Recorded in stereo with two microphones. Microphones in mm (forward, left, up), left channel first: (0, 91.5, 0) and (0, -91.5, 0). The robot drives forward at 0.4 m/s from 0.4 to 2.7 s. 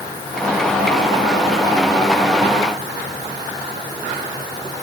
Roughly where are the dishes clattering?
I don't hear dishes clattering.